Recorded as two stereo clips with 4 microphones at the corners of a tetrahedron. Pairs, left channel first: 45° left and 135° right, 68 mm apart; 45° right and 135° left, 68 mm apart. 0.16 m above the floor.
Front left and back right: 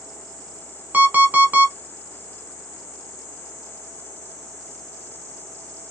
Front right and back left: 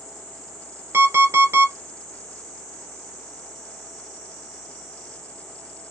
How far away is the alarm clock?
About 0.8 m.